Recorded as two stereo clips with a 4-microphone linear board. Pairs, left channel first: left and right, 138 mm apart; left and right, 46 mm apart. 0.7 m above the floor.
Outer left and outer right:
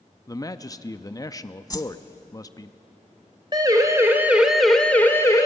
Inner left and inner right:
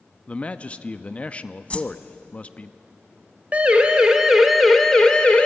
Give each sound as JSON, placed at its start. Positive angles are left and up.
{"t": 0.3, "sound": "a man speaking", "side_deg": 25, "distance_m": 0.6}
{"t": 1.7, "sound": "a whoosh", "side_deg": 30, "distance_m": 0.8}
{"t": 3.5, "sound": "a siren", "side_deg": -30, "distance_m": 2.0}